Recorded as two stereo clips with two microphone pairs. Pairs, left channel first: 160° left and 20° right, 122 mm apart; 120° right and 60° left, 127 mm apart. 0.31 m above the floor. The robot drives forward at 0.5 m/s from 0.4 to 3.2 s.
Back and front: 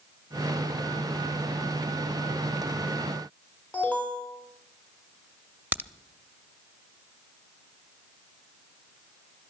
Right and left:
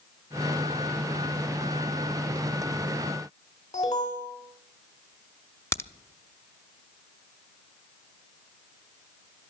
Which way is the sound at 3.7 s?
125° right.